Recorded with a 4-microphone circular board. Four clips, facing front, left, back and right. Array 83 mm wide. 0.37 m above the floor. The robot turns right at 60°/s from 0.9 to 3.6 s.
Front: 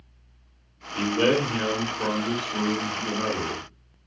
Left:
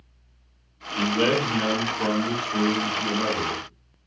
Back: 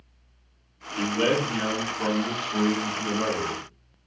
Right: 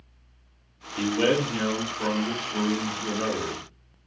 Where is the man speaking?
45° left, 1.3 m; by 3.6 s 155° right, 1.3 m.